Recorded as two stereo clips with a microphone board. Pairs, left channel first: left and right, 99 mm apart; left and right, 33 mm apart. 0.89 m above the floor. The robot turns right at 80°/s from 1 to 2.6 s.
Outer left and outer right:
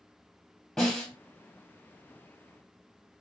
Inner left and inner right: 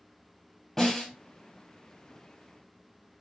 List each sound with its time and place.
0.8 s a snare drum: 5° left (ahead or behind), 2.5 m; by 1.1 s 15° left (ahead or behind), 2.5 m